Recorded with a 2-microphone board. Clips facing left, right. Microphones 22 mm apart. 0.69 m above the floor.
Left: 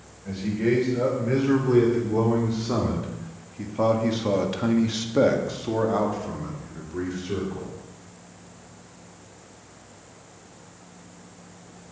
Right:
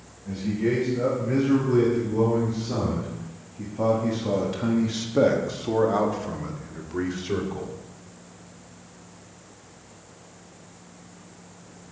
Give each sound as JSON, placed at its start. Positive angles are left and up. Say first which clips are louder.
{"t": 0.2, "sound": "a man speaking", "louder": "left 1 dB", "side_deg": 55, "distance_m": 3.0}